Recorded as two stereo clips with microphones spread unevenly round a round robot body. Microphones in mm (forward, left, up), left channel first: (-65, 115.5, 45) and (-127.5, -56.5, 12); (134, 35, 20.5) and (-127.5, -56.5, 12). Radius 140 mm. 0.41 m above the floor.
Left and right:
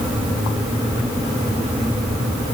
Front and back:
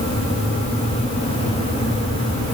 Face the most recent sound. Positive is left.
No sound to turn to.